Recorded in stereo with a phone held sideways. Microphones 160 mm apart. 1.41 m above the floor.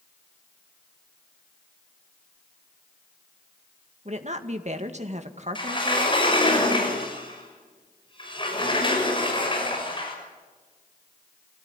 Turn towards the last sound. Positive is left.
turn(degrees=35)  # may be behind; listen again after turning